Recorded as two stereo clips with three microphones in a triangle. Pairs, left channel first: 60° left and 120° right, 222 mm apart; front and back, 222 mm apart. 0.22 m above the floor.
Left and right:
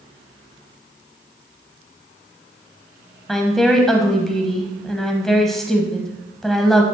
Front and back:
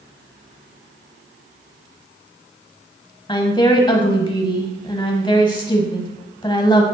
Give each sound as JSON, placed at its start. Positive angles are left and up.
{"t": 3.3, "sound": "a woman speaking", "azimuth_deg": -25, "distance_m": 1.0}